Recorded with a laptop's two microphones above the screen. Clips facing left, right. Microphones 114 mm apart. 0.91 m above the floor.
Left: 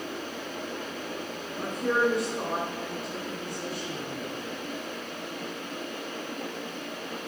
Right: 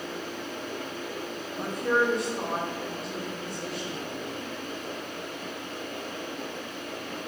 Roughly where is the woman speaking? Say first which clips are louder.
Even; centre.